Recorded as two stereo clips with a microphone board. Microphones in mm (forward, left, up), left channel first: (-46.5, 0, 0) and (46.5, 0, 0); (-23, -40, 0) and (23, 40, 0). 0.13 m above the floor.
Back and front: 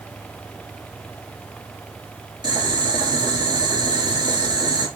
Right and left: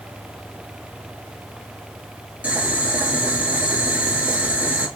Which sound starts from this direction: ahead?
Boiling, at 2.4 s.